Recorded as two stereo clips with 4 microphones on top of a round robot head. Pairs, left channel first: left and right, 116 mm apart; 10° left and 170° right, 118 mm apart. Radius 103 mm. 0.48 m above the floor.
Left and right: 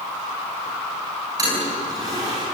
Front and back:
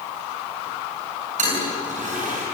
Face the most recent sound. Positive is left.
turn(degrees=-155)